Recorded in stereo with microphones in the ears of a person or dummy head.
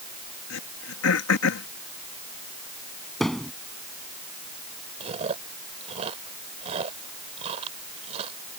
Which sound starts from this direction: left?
Throat clearing, at 0.5 s.